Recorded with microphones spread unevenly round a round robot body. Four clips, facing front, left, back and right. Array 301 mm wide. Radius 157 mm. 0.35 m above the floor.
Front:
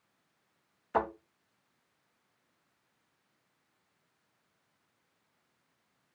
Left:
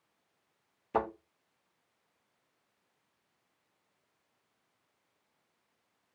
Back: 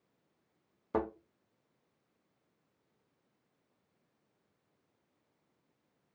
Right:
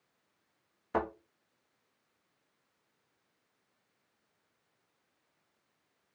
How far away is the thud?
About 0.8 m.